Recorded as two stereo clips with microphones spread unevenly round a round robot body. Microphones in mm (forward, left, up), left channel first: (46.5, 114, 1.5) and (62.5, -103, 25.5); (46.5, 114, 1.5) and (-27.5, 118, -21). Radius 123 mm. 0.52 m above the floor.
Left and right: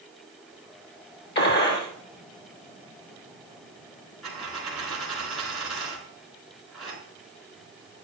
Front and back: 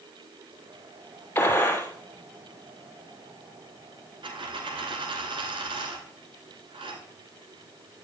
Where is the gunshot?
55° left, 3.5 m.